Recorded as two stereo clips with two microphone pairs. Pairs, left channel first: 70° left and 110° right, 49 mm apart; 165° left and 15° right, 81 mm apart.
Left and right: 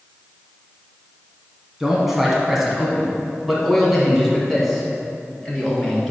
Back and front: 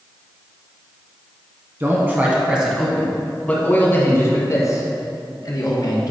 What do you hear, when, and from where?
1.8 s a man speaking: 30° right, 1.5 m; by 6.1 s 155° left, 2.5 m